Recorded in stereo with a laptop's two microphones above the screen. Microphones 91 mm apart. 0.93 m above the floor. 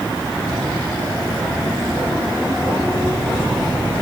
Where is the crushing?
I don't hear crushing.